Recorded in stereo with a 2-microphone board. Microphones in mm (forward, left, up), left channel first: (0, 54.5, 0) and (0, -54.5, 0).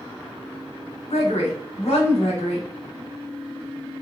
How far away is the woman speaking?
About 0.9 m.